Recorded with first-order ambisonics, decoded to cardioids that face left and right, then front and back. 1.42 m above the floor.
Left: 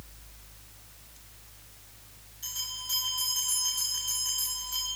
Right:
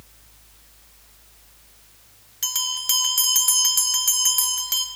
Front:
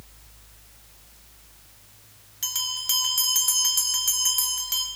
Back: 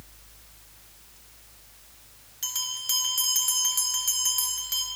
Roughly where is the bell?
Right.